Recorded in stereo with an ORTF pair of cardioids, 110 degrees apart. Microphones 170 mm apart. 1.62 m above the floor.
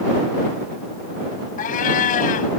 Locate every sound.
1.6 s a cat meowing: 55° left